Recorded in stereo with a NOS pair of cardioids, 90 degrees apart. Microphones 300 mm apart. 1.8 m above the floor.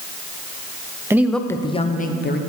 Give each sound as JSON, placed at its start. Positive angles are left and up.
{"t": 1.1, "sound": "a woman speaking", "azimuth_deg": -10, "distance_m": 0.9}